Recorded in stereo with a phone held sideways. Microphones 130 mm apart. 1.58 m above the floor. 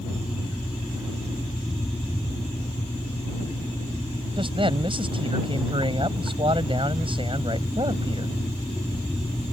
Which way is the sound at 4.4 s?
40° right (ahead or behind).